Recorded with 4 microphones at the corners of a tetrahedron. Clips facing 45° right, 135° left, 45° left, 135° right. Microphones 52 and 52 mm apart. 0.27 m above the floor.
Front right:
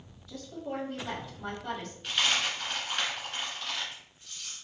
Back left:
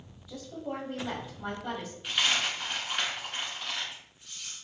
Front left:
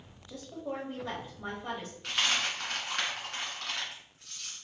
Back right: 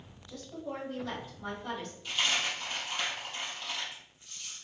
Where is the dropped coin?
55° left, 1.5 m.